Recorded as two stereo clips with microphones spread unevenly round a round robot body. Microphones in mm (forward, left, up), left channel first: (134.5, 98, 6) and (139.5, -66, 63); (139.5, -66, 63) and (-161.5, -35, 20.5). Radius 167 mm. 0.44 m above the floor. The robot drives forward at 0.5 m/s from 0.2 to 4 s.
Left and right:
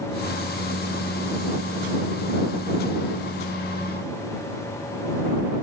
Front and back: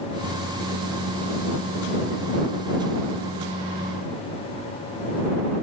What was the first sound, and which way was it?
Only background noise.